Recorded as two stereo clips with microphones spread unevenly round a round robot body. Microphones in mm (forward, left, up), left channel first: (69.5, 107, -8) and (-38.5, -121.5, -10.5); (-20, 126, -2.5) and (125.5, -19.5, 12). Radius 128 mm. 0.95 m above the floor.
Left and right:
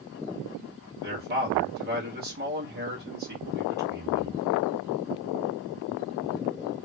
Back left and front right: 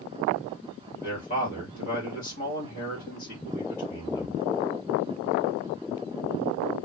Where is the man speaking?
170° right, 1.8 m.